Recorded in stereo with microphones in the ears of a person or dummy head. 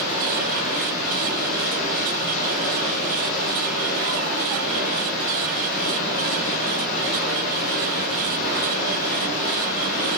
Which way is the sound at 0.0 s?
40° left (ahead or behind).